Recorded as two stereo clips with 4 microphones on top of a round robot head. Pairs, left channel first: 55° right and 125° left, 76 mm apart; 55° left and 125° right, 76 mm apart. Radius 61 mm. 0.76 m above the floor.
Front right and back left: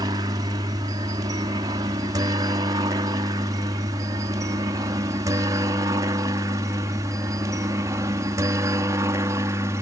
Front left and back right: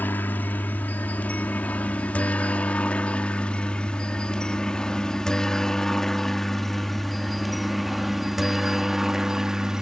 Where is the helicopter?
120° left; by 9.8 s 155° left.